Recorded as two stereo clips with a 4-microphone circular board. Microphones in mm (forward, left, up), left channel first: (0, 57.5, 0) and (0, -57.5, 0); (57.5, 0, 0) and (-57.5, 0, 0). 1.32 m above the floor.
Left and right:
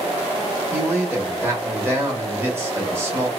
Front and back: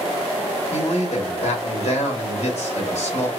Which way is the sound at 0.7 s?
20° right.